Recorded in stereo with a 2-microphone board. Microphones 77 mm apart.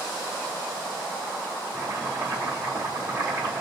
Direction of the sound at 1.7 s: 50° right (ahead or behind).